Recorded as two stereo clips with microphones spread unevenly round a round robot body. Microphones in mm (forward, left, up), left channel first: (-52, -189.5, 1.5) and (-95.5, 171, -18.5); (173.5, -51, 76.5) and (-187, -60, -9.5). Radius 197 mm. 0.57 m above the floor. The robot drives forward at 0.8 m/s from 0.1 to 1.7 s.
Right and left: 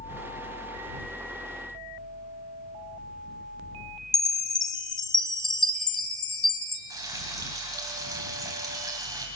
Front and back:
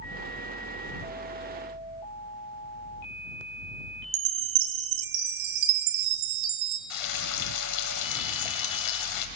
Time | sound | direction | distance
4.1 | a chime | 170° right | 1.2 m
6.9 | frying | 15° left | 2.0 m